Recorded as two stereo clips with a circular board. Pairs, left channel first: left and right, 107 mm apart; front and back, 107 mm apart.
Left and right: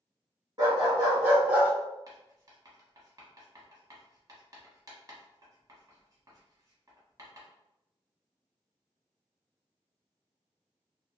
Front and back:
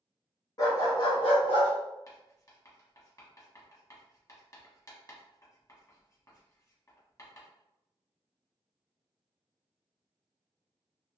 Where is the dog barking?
45° right, 1.2 m; by 1.7 s 15° right, 1.4 m.